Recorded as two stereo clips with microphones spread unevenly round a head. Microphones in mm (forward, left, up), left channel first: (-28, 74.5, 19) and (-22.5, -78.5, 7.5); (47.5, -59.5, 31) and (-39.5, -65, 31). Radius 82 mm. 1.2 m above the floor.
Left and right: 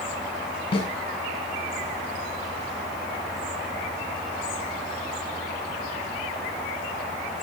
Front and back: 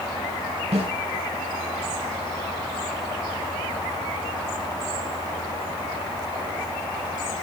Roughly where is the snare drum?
Behind left.